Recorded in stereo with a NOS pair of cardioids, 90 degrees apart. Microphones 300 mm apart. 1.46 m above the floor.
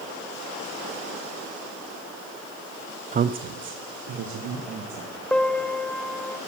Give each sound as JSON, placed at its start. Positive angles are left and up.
{"t": 3.1, "sound": "a woman speaking", "azimuth_deg": -25, "distance_m": 0.5}
{"t": 5.3, "sound": "a piano", "azimuth_deg": 5, "distance_m": 0.7}